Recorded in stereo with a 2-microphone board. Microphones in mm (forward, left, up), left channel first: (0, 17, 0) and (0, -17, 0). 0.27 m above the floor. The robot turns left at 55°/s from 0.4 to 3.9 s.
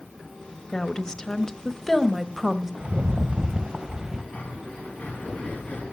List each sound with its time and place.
0.7 s a woman speaking: 25° left (ahead or behind), 0.9 m; by 2.7 s 10° right (ahead or behind), 0.9 m
2.8 s a rattle: 90° right, 0.6 m; by 4.2 s 155° right, 0.6 m
4.3 s breathing: 45° left (ahead or behind), 2 m